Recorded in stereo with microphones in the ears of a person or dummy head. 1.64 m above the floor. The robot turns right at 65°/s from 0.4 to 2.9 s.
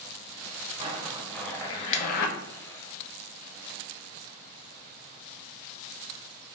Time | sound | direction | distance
0.8 | a zipper | 35° right | 0.7 m